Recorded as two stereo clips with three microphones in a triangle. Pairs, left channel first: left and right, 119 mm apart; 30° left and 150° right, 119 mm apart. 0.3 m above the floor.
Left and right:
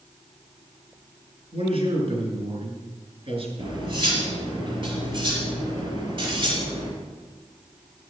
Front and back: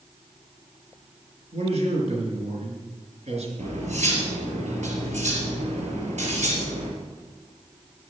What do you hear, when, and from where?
1.5 s a man speaking: 130° right, 4 m
3.6 s cutlery clinking: 135° right, 3.5 m